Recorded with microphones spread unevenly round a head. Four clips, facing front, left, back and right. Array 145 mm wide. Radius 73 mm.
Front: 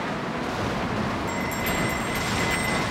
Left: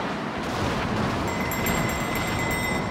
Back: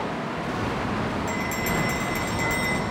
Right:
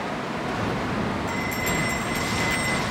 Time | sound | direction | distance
1.3 | a bell | 130° left | 5.5 m